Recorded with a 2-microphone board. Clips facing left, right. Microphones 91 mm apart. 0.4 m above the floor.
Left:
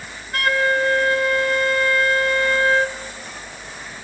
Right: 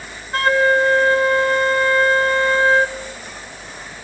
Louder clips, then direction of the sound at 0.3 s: Right 4 dB; 30° right (ahead or behind).